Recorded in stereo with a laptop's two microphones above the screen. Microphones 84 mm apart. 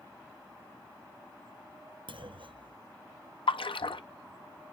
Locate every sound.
2.1 s a clunk: 75° right (ahead or behind), 0.6 m
3.5 s a splash: 90° left, 0.5 m